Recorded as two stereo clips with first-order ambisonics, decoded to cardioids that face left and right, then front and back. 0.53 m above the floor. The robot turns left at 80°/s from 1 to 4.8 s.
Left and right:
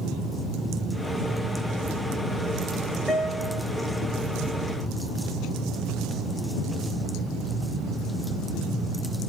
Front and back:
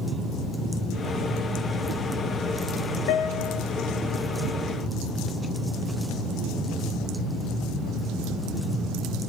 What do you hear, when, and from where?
3.1 s a guitar: straight ahead, 2 m; by 3.6 s 40° right, 2 m